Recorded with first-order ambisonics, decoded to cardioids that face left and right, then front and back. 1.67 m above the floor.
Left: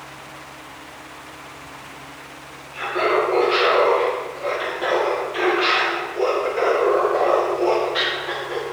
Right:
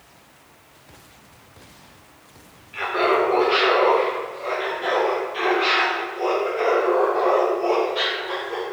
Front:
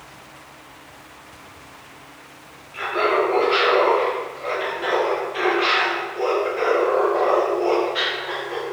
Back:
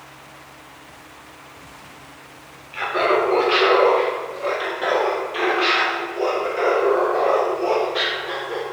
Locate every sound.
2.7 s laughter: 155° right, 1.5 m; by 8.6 s 90° left, 3 m